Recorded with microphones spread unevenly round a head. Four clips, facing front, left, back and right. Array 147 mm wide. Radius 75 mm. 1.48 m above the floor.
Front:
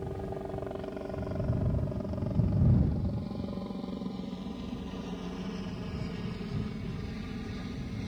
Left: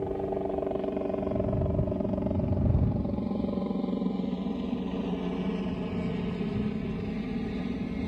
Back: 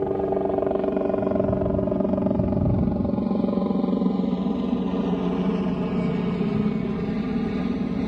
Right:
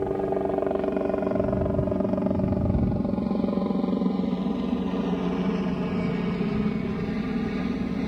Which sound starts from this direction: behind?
A helicopter, at 0.0 s.